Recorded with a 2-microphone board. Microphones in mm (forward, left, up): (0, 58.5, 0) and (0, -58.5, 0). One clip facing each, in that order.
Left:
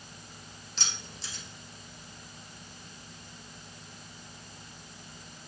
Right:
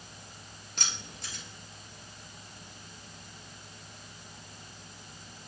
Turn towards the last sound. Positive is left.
turn(degrees=-55)  # may be behind; listen again after turning